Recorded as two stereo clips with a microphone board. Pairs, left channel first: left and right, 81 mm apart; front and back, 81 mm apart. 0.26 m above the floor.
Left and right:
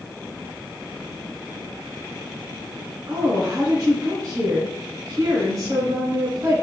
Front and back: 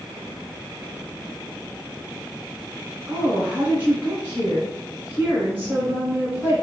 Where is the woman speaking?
115° right, 2.5 m.